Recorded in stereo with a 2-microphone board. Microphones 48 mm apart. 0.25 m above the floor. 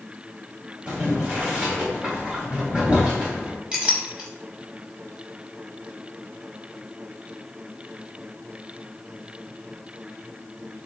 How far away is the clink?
About 0.6 m.